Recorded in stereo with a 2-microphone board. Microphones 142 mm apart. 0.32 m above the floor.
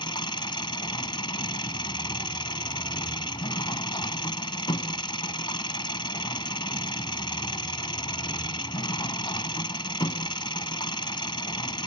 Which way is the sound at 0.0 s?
35° left (ahead or behind).